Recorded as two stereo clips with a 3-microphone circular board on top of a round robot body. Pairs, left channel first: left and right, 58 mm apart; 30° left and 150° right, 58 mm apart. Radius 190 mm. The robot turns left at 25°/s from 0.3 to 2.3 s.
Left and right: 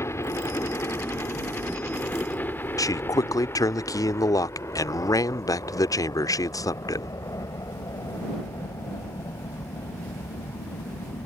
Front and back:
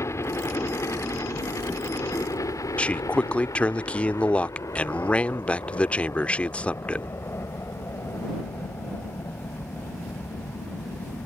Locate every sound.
0.0 s a helicopter: 60° left; by 11.3 s 85° left
2.8 s a man speaking: 100° left